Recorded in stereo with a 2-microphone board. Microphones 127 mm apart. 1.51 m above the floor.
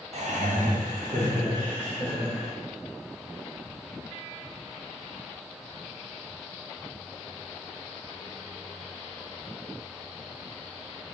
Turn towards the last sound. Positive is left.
turn(degrees=-65)  # may be behind; listen again after turning